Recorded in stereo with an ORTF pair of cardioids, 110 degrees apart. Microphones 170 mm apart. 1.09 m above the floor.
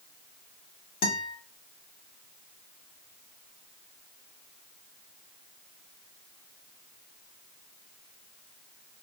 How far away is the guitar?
About 1.3 m.